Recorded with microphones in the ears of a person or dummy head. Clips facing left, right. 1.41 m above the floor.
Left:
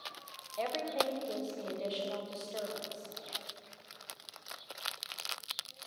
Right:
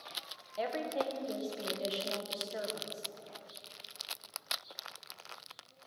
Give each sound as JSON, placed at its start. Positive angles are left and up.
{"t": 0.6, "sound": "a woman speaking", "side_deg": -10, "distance_m": 0.8}